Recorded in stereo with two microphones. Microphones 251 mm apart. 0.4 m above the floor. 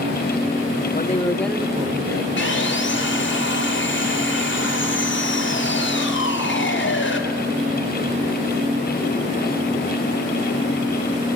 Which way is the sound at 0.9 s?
35° left (ahead or behind).